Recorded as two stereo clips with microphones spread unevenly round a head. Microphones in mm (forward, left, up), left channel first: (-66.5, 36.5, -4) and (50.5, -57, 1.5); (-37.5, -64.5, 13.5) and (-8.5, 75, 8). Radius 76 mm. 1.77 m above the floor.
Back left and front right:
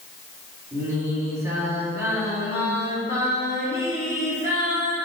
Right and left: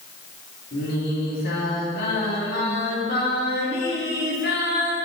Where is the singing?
110° right, 3 m.